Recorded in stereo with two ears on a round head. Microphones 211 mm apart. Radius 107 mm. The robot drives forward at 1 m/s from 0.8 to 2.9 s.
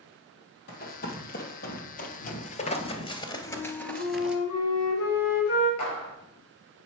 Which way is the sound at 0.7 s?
40° left (ahead or behind).